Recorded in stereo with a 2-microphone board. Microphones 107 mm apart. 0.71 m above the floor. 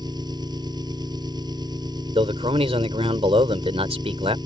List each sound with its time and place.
0.0 s an engine running: 40° right (ahead or behind)
2.1 s a man speaking: 65° right (ahead or behind)